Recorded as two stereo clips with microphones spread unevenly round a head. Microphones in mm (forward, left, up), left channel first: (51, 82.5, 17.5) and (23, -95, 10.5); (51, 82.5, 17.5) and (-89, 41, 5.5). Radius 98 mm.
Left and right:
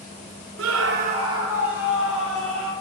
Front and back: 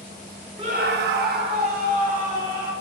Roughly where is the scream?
Right.